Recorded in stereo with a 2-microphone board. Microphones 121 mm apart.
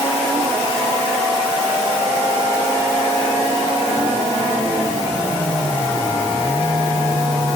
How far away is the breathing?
I don't hear breathing.